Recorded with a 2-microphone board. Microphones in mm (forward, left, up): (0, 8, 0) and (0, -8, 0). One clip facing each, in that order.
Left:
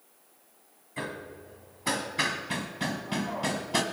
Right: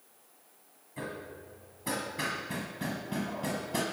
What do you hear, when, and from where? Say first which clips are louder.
1.0 s hammering: left 3 dB; 40° left (ahead or behind), 1.6 m